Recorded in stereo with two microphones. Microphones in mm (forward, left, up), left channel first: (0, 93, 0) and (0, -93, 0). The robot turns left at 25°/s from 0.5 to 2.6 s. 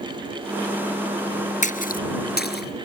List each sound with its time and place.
1.6 s a splash: 40° left (ahead or behind); by 2.9 s 60° left (ahead or behind)